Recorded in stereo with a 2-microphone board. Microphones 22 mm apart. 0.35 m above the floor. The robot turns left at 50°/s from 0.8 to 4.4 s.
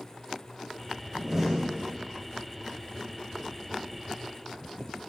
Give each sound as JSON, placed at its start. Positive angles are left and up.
{"t": 1.1, "sound": "a door slam", "azimuth_deg": -140, "distance_m": 1.1}